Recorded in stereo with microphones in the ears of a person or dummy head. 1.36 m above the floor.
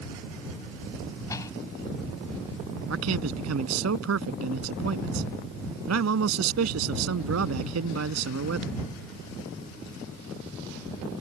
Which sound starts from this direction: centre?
A door slam, at 1.3 s.